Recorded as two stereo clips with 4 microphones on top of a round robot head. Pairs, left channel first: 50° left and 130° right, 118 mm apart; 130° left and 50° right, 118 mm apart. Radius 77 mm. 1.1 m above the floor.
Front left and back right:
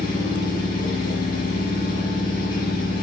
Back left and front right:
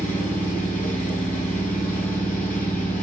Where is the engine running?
50° left, 8 m.